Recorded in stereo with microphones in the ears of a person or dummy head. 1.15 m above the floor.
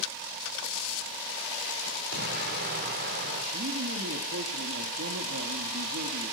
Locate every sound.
2.1 s an explosion: 50° right (ahead or behind), 2 m
3.5 s a man speaking: 60° right (ahead or behind), 1.4 m